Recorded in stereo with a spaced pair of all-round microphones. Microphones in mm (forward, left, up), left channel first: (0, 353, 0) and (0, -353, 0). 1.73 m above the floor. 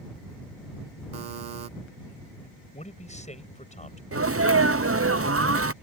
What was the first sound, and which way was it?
A buzzer, 75° right (ahead or behind).